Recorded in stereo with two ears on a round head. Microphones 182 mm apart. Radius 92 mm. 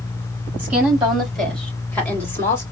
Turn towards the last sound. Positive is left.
turn(degrees=15)  # may be behind; listen again after turning